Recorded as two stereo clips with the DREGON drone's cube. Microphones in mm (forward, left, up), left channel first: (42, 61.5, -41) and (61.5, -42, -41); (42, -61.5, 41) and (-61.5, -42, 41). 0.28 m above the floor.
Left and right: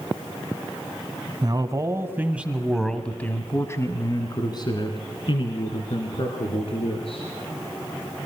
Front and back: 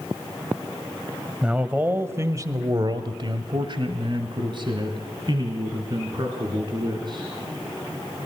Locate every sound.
1.4 s a man speaking: 115° right, 1.7 m; by 7.3 s 125° left, 4 m